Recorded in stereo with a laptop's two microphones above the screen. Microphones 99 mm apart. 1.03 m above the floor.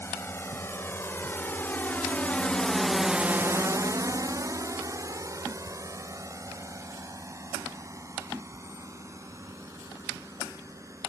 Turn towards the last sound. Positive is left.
turn(degrees=-30)  # may be behind; listen again after turning